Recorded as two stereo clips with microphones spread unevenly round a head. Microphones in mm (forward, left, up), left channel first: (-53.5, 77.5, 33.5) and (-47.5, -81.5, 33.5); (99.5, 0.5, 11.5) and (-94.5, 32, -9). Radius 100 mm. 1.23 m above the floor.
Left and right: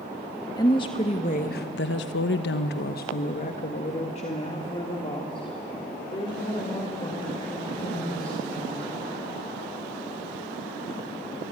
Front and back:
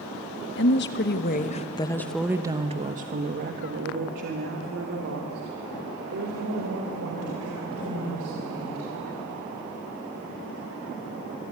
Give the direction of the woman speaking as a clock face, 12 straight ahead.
11 o'clock.